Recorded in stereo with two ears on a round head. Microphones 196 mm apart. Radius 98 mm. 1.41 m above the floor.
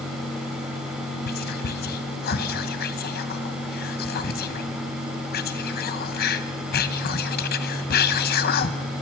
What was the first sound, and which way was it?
Whispering, 45° left (ahead or behind).